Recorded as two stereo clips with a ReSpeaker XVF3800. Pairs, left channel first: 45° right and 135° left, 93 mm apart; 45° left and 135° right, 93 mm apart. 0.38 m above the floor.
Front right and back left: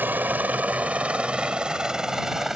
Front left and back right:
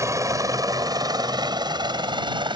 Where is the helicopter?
165° right; by 2.6 s 140° right.